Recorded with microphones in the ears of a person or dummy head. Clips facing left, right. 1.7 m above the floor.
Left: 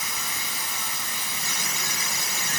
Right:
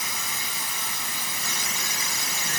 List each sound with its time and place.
Only background noise.